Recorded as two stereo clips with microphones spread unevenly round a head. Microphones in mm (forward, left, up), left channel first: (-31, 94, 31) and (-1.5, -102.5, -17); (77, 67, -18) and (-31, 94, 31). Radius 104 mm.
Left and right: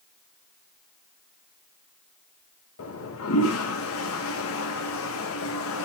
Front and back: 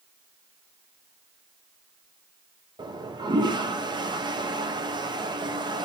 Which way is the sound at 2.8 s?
115° left.